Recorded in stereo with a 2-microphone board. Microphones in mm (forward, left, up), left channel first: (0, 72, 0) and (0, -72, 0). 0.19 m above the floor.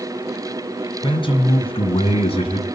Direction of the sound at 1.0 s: 35° left (ahead or behind).